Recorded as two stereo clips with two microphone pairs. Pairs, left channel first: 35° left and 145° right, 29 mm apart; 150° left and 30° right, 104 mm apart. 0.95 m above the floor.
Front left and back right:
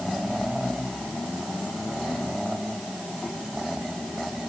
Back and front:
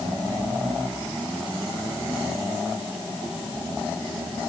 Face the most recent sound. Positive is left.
No sound to turn to.